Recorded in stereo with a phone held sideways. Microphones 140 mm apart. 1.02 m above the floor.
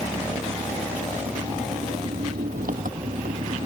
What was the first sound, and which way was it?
An engine running, 85° right.